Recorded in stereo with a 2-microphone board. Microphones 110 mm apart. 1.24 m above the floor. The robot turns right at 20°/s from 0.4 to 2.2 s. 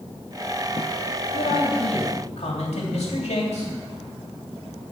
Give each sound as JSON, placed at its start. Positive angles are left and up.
{"t": 1.3, "sound": "a man speaking", "side_deg": 80, "distance_m": 2.5}